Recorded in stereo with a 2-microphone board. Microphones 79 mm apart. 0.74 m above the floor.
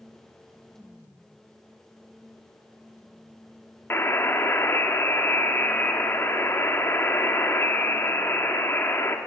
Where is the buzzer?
30° left (ahead or behind), 1.6 m.